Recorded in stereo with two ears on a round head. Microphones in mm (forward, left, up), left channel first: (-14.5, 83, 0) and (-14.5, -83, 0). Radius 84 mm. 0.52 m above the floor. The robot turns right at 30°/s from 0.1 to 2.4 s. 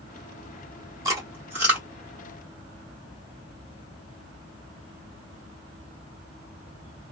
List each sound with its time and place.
1.1 s chewing: 20° right (ahead or behind), 1.3 m; by 1.9 s 5° right (ahead or behind), 1.3 m